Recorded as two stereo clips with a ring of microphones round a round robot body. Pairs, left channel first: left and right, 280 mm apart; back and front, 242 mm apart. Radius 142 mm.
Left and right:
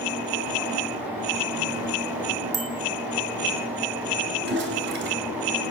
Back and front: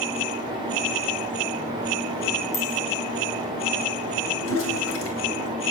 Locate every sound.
2.5 s a bicycle bell: 130° right, 3.5 m
4.4 s a toilet flushing: 140° right, 4 m